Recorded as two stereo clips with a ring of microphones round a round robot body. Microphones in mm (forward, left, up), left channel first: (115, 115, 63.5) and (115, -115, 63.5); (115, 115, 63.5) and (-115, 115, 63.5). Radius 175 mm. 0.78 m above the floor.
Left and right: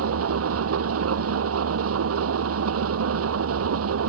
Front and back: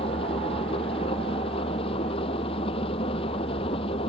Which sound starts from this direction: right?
An engine running, at 0.0 s.